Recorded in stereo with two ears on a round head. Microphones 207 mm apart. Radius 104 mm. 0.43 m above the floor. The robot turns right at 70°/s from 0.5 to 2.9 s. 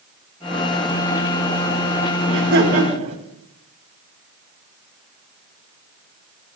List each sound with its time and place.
2.3 s laughter: 75° right, 3.5 m; by 3.2 s 30° right, 3.5 m